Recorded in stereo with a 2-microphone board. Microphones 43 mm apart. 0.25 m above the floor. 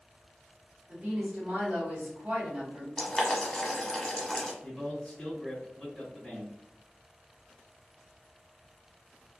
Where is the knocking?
No knocking in this recording.